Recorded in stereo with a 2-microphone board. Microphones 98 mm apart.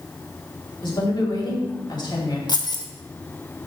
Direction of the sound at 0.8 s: 50° left (ahead or behind).